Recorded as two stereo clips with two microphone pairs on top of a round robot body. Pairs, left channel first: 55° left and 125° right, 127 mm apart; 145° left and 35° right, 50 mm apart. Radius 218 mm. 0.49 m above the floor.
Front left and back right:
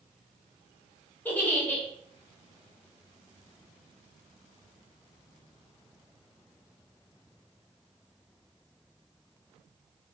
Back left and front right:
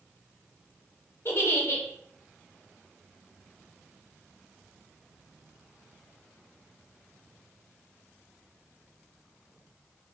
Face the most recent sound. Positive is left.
turn(degrees=130)